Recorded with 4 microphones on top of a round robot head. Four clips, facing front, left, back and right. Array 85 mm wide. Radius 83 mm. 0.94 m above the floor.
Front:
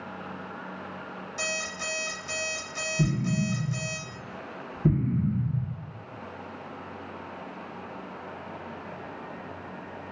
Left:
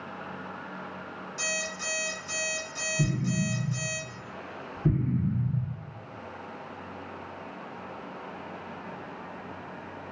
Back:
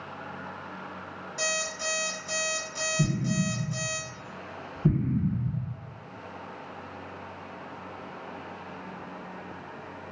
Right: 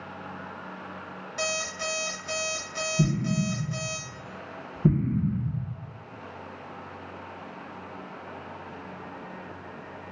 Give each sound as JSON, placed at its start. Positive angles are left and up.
{"t": 1.4, "sound": "an alarm clock", "azimuth_deg": -75, "distance_m": 1.3}
{"t": 3.0, "sound": "an explosion", "azimuth_deg": -85, "distance_m": 1.9}